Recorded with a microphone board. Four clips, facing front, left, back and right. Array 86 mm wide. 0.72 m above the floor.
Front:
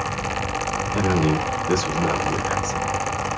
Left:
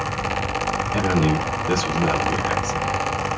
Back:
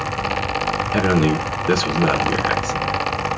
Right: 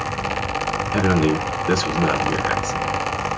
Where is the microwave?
No microwave in this recording.